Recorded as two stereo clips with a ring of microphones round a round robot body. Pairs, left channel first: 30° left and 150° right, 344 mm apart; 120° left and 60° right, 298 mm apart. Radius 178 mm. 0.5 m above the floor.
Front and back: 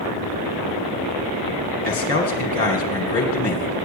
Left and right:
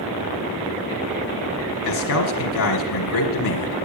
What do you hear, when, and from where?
1.9 s a man speaking: 90° left, 1.8 m